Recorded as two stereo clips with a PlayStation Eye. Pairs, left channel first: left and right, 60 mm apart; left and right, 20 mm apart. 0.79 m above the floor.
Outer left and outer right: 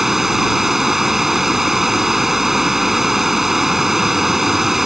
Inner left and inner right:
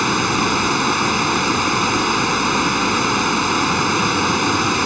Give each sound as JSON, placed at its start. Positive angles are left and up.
{"t": 0.0, "sound": "running water", "side_deg": -5}